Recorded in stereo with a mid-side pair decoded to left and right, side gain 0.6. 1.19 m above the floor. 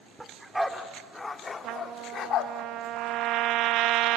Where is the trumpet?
60° right, 0.7 m.